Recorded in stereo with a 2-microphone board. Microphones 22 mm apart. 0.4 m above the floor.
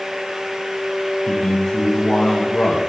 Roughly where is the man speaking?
Left.